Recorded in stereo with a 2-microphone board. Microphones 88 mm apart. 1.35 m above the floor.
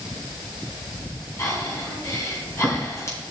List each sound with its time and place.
1.4 s breathing: 35° left (ahead or behind), 3 m